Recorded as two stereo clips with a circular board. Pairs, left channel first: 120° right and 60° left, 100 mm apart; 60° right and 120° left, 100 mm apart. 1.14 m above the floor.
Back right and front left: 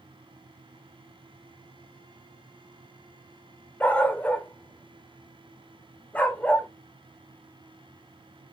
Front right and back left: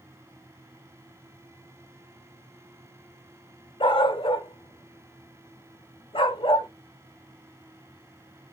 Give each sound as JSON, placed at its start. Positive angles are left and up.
{"t": 3.8, "sound": "a dog barking", "azimuth_deg": -45, "distance_m": 1.4}